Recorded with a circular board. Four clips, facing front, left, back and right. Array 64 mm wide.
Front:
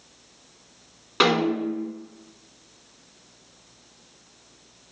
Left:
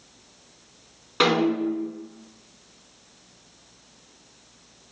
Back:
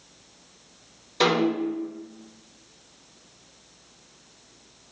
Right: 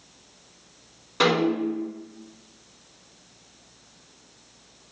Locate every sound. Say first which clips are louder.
1.2 s a snare drum: left 1 dB, front 1 dB; 10° left, 1.9 m